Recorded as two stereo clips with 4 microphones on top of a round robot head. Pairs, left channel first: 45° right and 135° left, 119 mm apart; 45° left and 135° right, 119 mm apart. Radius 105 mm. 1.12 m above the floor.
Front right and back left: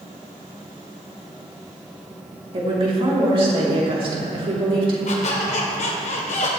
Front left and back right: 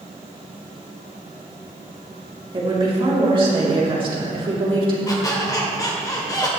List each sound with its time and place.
2.5 s a woman speaking: straight behind, 3.5 m
5.1 s a squeak: 15° right, 1.8 m